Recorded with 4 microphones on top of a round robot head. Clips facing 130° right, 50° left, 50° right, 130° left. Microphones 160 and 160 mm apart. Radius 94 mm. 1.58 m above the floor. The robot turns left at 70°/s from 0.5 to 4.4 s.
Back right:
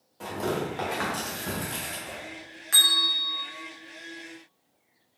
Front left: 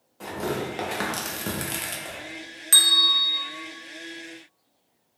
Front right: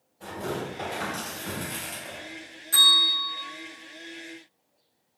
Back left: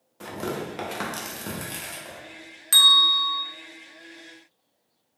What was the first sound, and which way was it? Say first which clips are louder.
Tearing paper: even, back left 1 dB; 140° left.